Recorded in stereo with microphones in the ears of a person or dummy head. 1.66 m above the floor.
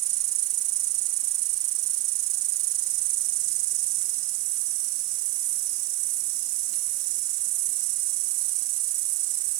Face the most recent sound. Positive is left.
turn(degrees=-60)  # may be behind; listen again after turning